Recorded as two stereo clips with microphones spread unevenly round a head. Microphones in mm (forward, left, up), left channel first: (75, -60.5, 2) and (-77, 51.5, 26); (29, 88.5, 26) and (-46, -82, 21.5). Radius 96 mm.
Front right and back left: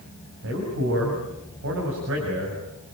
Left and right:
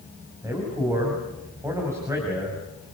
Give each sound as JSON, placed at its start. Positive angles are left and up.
{"t": 0.4, "sound": "a man speaking", "azimuth_deg": 170, "distance_m": 6.0}